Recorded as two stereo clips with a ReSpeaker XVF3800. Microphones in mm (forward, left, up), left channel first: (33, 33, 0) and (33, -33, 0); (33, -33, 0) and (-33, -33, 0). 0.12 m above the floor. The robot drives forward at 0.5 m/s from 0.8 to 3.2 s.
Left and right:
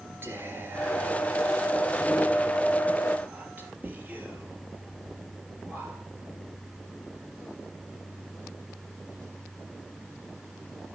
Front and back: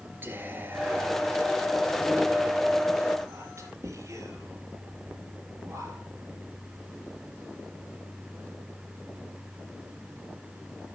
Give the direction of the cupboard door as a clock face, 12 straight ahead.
No cupboard door in this recording.